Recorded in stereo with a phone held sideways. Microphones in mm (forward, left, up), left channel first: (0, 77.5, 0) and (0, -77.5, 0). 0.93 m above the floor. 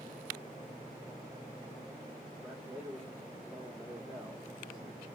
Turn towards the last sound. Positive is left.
turn(degrees=0)  # may be behind; listen again after turning